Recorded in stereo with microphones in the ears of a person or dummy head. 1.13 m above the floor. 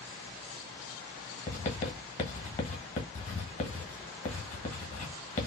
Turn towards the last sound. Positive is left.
turn(degrees=45)  # may be behind; listen again after turning